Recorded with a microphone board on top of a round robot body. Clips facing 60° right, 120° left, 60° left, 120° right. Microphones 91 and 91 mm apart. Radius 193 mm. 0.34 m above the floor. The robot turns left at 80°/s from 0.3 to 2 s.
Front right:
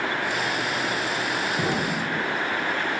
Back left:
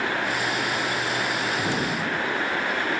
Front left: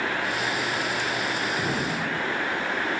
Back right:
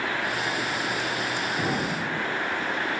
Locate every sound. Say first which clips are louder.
1.6 s an explosion: even, even; 40° right, 5 m; by 2.2 s 75° right, 5 m